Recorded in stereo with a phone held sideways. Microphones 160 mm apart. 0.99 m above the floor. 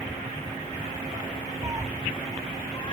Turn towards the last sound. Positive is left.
turn(degrees=30)  # may be behind; listen again after turning